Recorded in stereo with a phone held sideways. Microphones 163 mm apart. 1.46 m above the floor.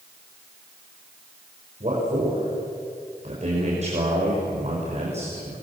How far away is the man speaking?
About 6 m.